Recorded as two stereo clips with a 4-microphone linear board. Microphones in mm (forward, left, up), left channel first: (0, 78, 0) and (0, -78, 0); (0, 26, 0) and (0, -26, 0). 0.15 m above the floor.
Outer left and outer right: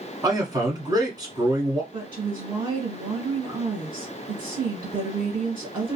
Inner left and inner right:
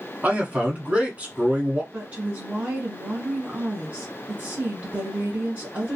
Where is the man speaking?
25° right (ahead or behind), 1.2 m.